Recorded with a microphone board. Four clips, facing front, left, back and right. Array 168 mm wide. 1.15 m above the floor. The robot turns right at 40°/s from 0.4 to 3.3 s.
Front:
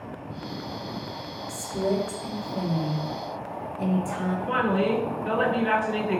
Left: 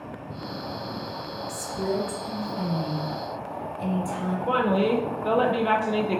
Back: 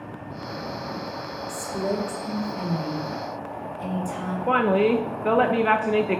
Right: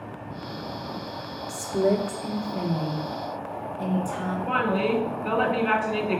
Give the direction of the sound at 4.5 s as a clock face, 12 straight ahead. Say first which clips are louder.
Left 2 dB, back 5 dB; 7 o'clock.